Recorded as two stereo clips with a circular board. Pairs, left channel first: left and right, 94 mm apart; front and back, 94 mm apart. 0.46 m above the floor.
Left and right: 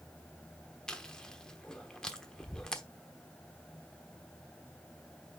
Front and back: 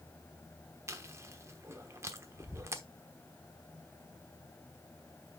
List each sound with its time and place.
0.9 s chewing: 165° left, 1.0 m